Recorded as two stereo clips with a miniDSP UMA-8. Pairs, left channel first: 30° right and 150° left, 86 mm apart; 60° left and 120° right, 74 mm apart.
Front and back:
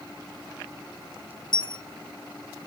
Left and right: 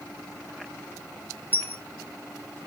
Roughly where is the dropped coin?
Ahead.